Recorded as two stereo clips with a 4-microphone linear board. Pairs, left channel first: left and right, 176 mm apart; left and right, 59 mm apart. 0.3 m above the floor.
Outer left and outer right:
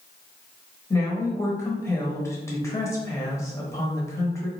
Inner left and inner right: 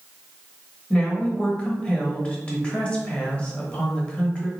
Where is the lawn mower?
I don't hear a lawn mower.